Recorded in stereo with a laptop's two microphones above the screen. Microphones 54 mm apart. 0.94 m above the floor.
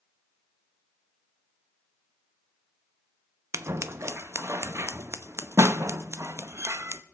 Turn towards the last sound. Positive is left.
turn(degrees=-50)  # may be behind; listen again after turning